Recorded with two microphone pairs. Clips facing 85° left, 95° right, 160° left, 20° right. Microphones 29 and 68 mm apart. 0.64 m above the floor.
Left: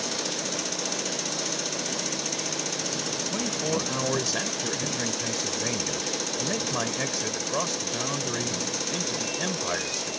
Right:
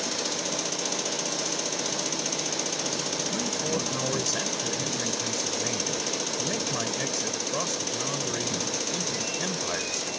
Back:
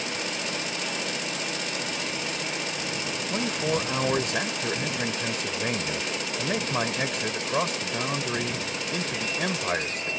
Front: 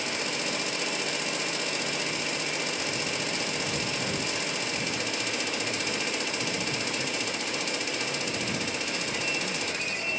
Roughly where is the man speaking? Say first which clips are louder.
Left 3 dB, back 5 dB; behind.